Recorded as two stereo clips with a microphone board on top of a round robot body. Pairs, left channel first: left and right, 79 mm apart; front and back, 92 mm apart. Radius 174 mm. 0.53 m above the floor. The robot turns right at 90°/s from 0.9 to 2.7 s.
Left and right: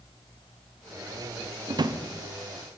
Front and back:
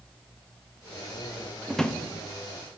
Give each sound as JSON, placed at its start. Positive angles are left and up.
{"t": 1.7, "sound": "a drawer", "azimuth_deg": -95, "distance_m": 0.5}